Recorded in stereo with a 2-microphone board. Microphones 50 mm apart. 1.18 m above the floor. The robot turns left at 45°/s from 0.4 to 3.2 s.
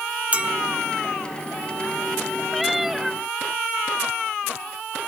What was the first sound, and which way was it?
A clink, 25° right (ahead or behind).